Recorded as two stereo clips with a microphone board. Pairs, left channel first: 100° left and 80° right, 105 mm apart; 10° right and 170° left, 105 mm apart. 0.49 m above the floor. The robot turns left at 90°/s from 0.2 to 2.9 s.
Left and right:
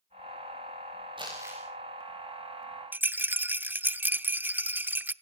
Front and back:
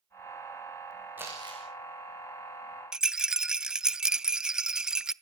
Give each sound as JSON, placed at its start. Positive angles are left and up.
{"t": 1.2, "sound": "crumpling", "azimuth_deg": -120, "distance_m": 10.0}
{"t": 2.9, "sound": "a rattle", "azimuth_deg": -115, "distance_m": 0.6}